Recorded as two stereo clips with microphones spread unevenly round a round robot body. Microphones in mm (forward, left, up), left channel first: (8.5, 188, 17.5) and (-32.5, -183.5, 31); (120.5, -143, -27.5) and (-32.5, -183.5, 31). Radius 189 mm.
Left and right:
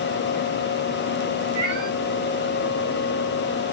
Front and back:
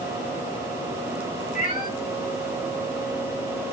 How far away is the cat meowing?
About 5 m.